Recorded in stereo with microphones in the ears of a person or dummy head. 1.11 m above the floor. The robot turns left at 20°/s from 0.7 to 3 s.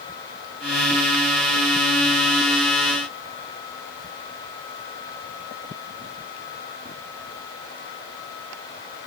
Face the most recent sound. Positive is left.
No sound to turn to.